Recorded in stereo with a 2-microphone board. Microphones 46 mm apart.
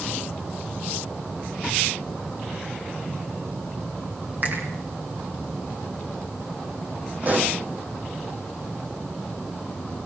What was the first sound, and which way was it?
A finger snap, 40° right (ahead or behind).